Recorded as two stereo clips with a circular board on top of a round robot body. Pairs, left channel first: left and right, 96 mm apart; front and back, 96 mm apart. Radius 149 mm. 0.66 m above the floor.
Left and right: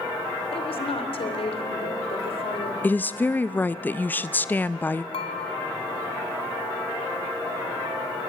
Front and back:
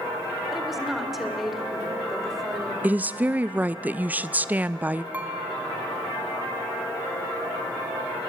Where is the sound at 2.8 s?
130° left, 0.6 m.